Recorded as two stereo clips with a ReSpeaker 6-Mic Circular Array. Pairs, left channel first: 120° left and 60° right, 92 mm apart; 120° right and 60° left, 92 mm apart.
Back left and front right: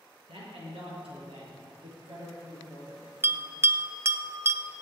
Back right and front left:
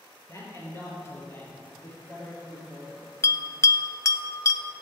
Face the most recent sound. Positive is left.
turn(degrees=-95)